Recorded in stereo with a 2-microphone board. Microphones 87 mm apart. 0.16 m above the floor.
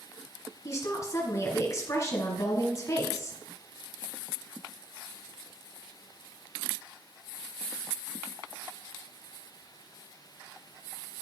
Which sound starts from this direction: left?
A woman speaking, at 0.7 s.